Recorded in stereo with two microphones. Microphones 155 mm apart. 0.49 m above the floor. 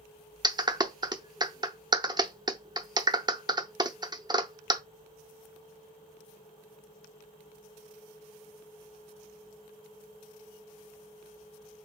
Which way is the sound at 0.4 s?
25° right (ahead or behind).